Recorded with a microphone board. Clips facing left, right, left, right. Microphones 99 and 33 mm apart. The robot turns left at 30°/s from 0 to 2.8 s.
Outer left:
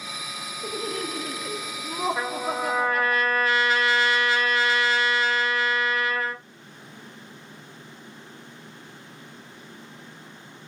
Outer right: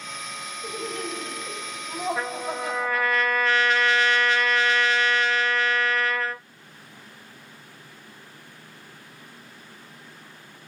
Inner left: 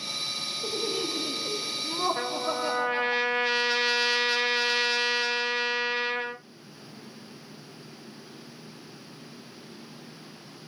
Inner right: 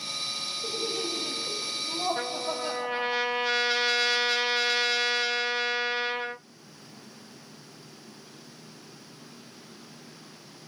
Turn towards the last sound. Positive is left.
turn(degrees=5)  # may be behind; listen again after turning